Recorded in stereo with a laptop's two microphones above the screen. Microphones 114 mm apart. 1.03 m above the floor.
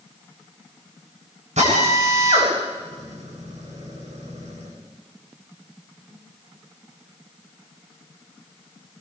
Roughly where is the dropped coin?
No dropped coin in this recording.